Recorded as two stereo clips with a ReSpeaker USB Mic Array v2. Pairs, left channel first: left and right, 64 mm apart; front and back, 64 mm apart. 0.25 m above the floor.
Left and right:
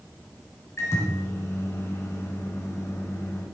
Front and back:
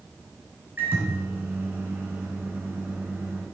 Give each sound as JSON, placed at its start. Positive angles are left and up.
{"t": 0.8, "sound": "a microwave", "azimuth_deg": 130, "distance_m": 2.5}